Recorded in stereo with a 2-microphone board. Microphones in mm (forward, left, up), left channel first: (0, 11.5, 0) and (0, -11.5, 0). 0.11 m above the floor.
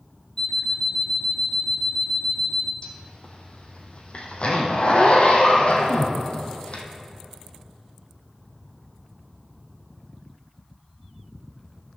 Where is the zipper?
60° left (ahead or behind), 1.3 m.